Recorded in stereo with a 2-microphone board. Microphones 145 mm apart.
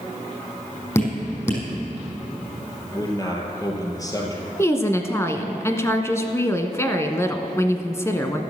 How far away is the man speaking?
About 3 m.